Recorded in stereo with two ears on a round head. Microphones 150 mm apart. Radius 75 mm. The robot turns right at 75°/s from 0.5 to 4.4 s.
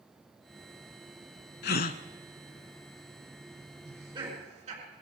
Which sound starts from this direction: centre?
Laughter, at 3.8 s.